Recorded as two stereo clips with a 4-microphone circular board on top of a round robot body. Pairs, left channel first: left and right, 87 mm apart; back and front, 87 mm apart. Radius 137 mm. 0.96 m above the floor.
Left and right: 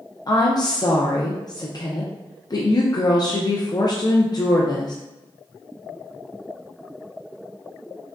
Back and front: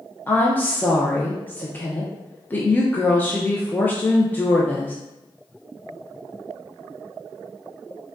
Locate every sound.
0.3 s a woman speaking: 115° left, 0.6 m